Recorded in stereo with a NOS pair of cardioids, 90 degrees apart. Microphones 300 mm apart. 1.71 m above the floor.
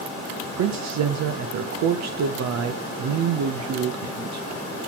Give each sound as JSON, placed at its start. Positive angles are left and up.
{"t": 0.6, "sound": "a man speaking", "azimuth_deg": -60, "distance_m": 0.7}